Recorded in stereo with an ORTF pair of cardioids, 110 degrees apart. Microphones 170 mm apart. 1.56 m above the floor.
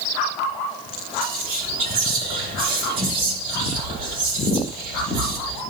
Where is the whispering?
60° right, 3.5 m.